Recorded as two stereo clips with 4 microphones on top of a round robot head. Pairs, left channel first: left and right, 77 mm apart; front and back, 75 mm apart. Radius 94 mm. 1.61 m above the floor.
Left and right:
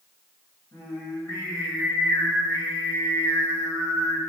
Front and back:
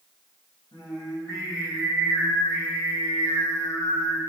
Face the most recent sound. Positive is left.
turn(degrees=25)